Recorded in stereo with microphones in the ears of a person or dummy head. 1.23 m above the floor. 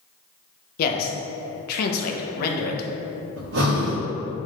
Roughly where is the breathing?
Right.